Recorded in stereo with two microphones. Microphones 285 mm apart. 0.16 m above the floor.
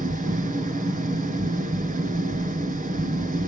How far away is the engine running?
About 1.1 m.